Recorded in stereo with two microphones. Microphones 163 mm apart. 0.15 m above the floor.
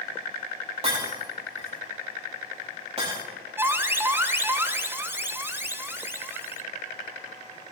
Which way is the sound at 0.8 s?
35° right (ahead or behind).